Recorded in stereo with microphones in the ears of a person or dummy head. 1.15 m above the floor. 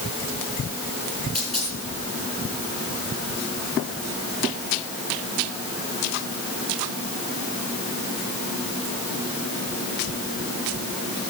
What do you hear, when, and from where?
1.4 s a dropped coin: 5° right (ahead or behind), 5.5 m